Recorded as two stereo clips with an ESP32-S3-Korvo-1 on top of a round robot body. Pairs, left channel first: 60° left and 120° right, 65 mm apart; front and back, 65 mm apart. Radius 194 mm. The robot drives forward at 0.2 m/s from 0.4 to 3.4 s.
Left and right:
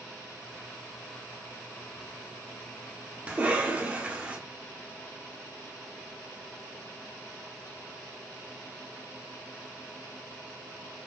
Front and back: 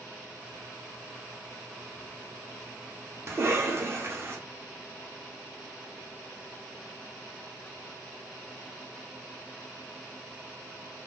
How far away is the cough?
About 1.2 m.